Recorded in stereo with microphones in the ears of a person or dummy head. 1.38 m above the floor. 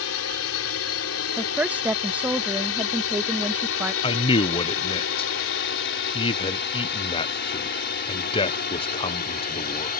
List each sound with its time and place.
0.0 s a drone: 70° left (ahead or behind); by 10.0 s 45° left (ahead or behind)
1.4 s a woman speaking: 10° right (ahead or behind)
4.0 s a man speaking: 25° left (ahead or behind)